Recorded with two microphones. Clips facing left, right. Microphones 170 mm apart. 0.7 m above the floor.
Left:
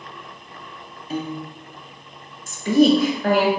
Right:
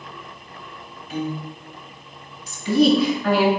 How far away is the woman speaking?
About 0.9 m.